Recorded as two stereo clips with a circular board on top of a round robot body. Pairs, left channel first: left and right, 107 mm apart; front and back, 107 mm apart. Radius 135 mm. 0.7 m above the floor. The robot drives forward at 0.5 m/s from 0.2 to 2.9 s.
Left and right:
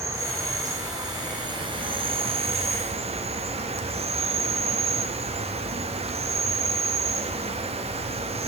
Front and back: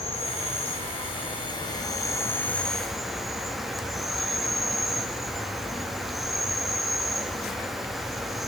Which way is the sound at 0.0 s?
25° right.